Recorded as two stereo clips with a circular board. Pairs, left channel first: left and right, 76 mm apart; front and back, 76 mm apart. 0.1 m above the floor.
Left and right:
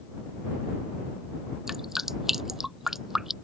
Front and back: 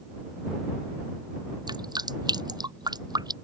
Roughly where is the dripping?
Behind.